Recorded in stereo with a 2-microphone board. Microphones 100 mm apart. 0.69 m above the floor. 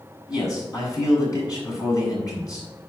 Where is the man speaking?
35° left (ahead or behind), 5.5 m.